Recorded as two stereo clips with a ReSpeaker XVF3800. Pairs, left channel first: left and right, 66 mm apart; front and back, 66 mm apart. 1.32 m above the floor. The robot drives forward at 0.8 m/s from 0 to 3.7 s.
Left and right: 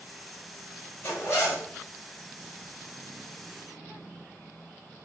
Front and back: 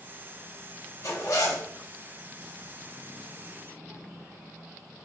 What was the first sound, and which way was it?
A zipper, 35° left.